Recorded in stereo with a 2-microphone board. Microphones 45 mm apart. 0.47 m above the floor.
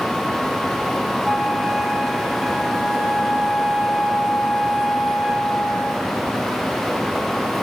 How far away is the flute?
About 1.5 m.